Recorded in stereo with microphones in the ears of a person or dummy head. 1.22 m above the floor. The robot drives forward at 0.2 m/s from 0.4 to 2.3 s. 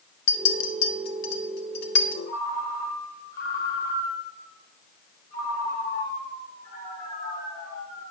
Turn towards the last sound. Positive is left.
turn(degrees=55)  # may be behind; listen again after turning